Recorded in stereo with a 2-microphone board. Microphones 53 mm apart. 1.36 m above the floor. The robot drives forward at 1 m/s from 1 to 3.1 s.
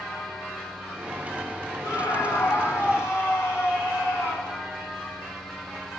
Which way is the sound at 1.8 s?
70° left (ahead or behind).